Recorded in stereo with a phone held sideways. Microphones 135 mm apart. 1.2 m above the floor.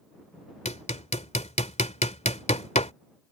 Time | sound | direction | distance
0.7 | hammering | 55° left (ahead or behind) | ?